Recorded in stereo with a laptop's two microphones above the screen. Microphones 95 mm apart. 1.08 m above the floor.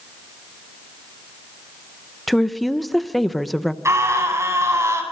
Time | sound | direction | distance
2.3 | a woman speaking | centre (ahead or behind) | 0.9 m
3.9 | a scream | 30° right (ahead or behind) | 8 m